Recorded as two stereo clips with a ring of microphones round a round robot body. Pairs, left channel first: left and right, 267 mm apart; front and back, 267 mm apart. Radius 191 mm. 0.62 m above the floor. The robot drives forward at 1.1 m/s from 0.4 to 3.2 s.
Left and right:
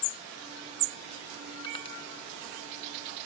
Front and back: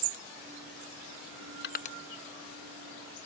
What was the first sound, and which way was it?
Crushing, 25° left.